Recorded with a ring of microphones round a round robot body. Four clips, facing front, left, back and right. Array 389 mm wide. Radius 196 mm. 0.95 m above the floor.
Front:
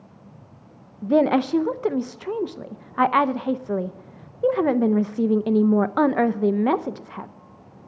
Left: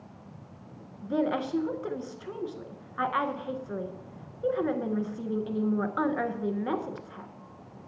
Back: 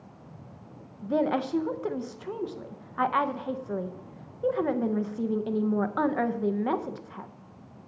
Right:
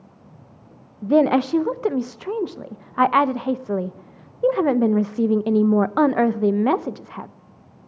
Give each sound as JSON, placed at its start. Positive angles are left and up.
{"t": 1.0, "sound": "a woman speaking", "azimuth_deg": -55, "distance_m": 0.5}